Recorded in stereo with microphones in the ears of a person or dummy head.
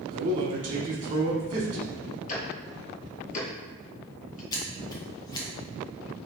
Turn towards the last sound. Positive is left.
turn(degrees=20)  # may be behind; listen again after turning